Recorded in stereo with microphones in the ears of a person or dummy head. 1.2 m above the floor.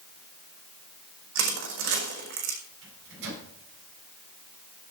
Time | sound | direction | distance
1.4 | crushing | 70° right (ahead or behind) | 5.5 m
2.8 | a microwave | 75° right (ahead or behind) | 9.5 m